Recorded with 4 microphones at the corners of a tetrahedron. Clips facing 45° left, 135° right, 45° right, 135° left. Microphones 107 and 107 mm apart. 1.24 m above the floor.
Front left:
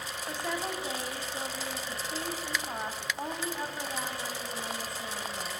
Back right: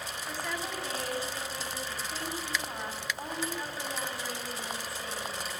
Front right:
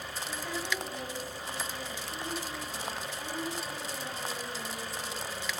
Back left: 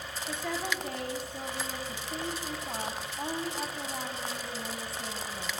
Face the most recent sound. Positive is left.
turn(degrees=115)